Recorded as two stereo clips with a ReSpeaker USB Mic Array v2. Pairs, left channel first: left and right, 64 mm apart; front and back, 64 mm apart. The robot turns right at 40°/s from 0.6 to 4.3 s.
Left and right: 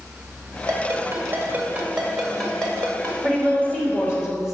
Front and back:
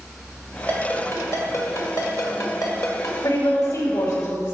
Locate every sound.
0.7 s a ringtone: 65° right, 2 m; by 3.1 s 35° left, 2 m
3.2 s a woman speaking: 5° left, 3 m; by 4.6 s 50° left, 3 m